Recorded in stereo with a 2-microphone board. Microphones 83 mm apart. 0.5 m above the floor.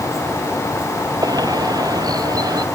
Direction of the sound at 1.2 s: 50° right (ahead or behind).